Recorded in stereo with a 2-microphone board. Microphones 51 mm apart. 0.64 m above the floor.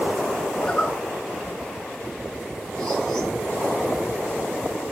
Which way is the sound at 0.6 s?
10° left (ahead or behind).